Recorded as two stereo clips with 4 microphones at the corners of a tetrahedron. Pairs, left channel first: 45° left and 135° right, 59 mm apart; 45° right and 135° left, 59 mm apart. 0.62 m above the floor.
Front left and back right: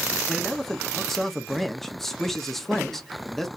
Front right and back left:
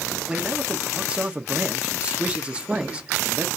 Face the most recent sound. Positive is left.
turn(degrees=120)